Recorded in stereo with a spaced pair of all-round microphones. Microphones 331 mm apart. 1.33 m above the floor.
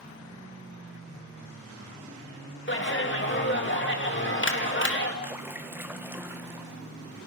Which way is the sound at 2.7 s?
40° left (ahead or behind).